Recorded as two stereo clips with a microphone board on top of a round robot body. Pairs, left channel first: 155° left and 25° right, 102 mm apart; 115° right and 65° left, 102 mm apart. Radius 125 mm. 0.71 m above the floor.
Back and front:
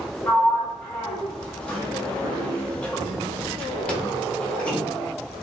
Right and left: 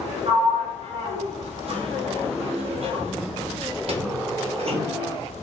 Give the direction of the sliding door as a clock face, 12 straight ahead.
9 o'clock.